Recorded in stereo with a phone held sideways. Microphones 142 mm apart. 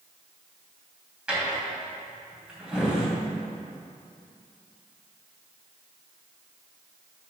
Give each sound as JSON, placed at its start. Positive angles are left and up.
{"t": 1.3, "sound": "a drawer", "side_deg": -5, "distance_m": 2.5}